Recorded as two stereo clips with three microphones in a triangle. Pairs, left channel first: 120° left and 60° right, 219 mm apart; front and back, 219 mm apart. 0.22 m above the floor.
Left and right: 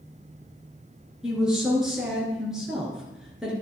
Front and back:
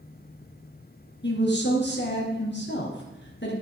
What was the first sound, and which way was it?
A woman speaking, 25° left.